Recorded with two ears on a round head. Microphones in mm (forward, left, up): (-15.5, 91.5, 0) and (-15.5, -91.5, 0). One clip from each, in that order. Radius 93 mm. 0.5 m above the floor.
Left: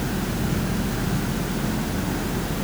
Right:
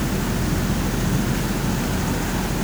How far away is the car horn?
I don't hear a car horn.